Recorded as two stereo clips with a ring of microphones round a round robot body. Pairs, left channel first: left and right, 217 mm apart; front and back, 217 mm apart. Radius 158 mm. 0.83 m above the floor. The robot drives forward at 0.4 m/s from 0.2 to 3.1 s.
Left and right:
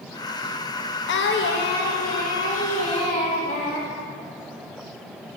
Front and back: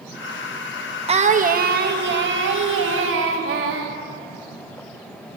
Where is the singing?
120° left, 0.6 m; by 3.9 s 155° left, 1.2 m.